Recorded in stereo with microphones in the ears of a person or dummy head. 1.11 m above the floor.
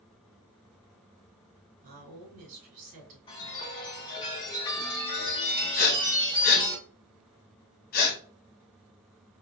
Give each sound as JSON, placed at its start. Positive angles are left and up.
{"t": 1.8, "sound": "a woman speaking", "side_deg": -45, "distance_m": 2.0}
{"t": 3.3, "sound": "a chime", "side_deg": 25, "distance_m": 1.2}
{"t": 5.8, "sound": "breathing", "side_deg": 45, "distance_m": 1.4}